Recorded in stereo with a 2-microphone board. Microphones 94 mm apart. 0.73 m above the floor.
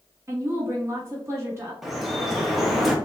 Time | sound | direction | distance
0.3 | a woman speaking | 30° right (ahead or behind) | 1.0 m
1.8 | dripping | centre (ahead or behind) | 0.6 m